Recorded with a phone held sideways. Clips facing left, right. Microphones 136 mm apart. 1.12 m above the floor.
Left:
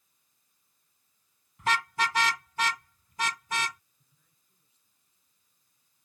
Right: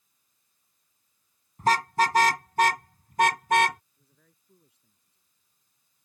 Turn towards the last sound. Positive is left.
turn(degrees=-65)  # may be behind; listen again after turning